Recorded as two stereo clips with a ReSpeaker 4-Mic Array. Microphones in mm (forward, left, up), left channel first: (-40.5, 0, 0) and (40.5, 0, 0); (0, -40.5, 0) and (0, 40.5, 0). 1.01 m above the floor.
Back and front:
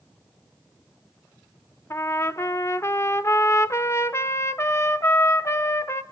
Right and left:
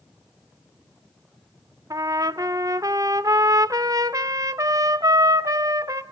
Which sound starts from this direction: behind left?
A trumpet, at 1.9 s.